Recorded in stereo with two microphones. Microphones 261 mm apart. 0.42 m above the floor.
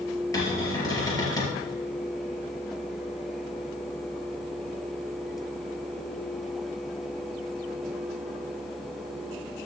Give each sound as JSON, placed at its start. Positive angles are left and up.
{"t": 0.3, "sound": "a cupboard door", "side_deg": 15, "distance_m": 3.0}